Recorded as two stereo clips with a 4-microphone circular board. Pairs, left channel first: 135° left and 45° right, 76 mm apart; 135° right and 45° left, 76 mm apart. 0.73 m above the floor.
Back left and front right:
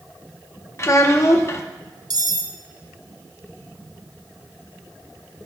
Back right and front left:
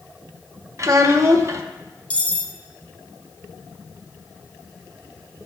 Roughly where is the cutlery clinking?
Ahead right.